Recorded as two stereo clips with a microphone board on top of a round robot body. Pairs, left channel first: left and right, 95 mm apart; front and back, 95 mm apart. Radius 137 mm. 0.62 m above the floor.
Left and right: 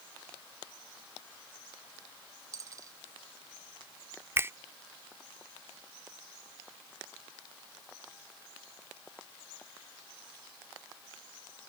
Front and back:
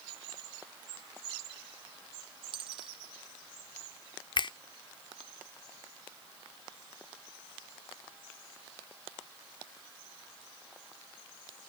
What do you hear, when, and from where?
2.5 s a dropped coin: 145° right
4.4 s a finger snap: 30° right